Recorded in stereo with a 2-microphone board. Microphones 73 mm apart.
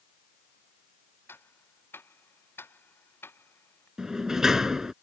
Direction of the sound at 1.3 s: 35° left (ahead or behind).